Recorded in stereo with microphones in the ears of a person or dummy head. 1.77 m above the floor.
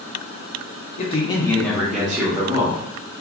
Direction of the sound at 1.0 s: 40° left (ahead or behind).